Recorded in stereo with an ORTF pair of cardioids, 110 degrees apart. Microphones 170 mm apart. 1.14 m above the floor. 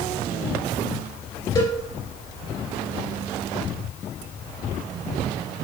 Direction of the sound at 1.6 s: 30° left.